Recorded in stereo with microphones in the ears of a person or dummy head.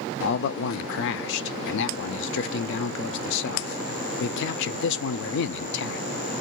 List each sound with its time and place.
0.2 s a man speaking: 60° left (ahead or behind), 0.5 m